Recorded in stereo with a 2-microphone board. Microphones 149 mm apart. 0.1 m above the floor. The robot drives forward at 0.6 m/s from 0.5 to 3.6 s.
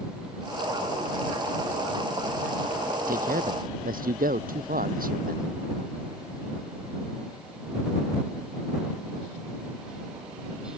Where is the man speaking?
70° right (ahead or behind).